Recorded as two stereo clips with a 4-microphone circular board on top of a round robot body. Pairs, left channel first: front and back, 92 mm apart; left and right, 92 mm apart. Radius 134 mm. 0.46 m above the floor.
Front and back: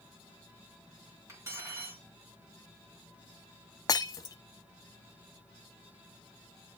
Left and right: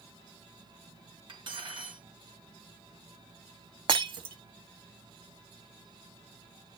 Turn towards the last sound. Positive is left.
turn(degrees=-55)